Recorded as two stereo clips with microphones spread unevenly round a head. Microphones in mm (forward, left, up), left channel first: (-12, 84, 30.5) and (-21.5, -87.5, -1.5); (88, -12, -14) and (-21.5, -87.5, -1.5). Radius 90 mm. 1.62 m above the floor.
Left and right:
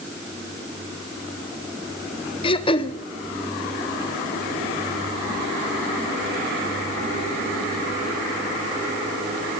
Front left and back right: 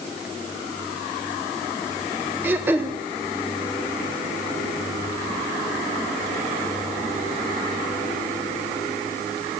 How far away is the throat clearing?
About 0.7 m.